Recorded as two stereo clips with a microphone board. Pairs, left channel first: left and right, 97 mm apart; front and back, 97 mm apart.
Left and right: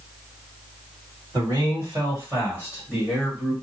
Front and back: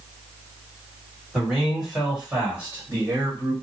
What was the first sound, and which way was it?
A man speaking, 85° right.